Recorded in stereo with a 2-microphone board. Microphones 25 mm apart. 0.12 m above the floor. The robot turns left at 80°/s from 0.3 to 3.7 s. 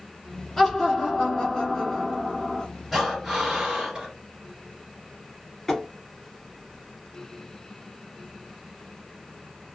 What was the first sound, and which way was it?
Laughter, 15° left (ahead or behind).